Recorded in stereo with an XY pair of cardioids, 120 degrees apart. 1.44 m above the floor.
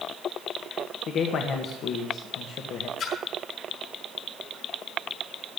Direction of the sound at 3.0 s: 65° left.